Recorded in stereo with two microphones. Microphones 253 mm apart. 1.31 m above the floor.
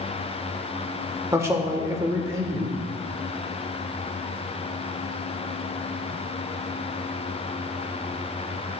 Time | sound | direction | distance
1.3 | a man speaking | 10° right (ahead or behind) | 1.2 m